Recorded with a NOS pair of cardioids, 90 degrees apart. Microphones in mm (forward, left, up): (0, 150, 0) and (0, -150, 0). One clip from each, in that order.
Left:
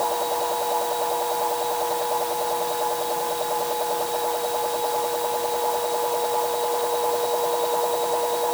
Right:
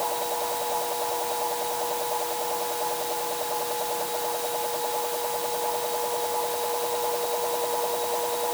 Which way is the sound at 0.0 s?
35° left.